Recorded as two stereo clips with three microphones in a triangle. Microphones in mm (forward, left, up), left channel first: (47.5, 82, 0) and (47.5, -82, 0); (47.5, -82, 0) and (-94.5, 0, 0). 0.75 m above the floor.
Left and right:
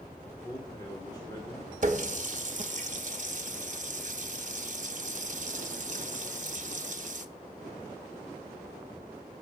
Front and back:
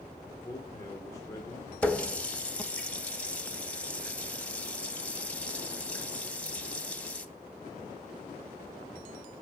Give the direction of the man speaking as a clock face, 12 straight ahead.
11 o'clock.